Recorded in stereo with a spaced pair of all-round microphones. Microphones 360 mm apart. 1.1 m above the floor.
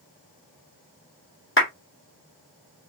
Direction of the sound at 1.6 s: 35° left (ahead or behind).